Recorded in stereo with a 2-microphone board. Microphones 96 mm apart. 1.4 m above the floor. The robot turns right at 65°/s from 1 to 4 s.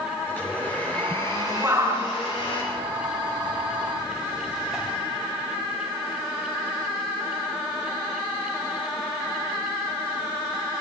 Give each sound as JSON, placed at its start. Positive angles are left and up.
{"t": 0.3, "sound": "a blender", "azimuth_deg": 20, "distance_m": 9.0}
{"t": 1.6, "sound": "a shout", "side_deg": -20, "distance_m": 10.0}